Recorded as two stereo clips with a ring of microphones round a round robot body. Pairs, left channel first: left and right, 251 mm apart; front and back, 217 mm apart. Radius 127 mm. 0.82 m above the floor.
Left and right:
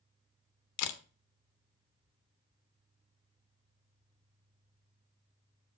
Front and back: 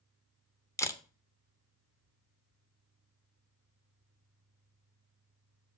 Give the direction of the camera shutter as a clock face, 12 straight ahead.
9 o'clock.